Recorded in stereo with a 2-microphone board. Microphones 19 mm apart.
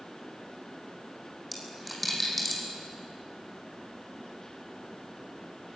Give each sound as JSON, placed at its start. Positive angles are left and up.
{"t": 1.5, "sound": "a dropped coin", "side_deg": 0, "distance_m": 5.5}